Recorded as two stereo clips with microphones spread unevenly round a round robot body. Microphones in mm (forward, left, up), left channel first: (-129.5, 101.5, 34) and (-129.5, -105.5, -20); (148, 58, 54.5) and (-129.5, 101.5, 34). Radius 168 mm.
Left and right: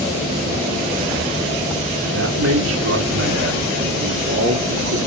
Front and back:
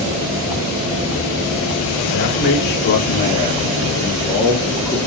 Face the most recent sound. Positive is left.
turn(degrees=-100)